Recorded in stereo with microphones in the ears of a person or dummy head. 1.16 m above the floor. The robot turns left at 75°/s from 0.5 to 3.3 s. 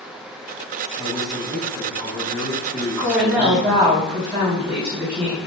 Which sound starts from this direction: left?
A woman speaking, at 3.0 s.